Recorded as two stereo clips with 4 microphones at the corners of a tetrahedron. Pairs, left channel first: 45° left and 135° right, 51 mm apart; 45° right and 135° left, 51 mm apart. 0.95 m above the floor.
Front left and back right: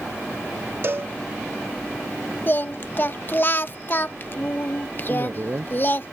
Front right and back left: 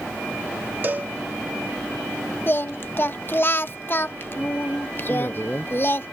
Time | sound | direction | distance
0.8 | a cowbell | 175° right | ?
2.5 | singing | straight ahead | ?
5.1 | a woman speaking | 100° right | ?